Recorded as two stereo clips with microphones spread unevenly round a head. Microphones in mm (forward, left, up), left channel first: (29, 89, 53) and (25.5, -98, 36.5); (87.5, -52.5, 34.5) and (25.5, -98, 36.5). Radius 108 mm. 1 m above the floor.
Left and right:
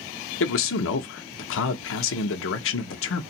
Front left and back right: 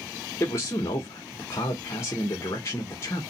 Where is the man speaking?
100° left, 0.6 m.